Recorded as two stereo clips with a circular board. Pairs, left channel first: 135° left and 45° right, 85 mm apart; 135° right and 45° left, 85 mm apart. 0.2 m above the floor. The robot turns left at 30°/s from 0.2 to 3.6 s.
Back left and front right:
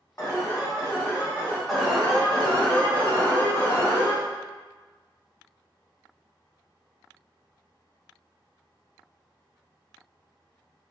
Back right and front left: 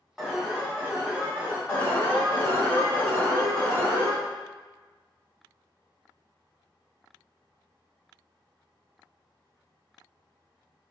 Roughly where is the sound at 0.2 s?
Behind left.